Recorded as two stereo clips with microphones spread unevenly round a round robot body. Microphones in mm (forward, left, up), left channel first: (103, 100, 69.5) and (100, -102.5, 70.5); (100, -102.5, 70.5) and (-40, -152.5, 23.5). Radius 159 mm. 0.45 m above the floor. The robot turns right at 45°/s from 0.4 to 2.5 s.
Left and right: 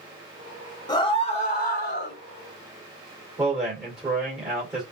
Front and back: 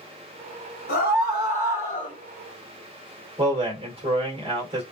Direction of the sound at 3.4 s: 175° right.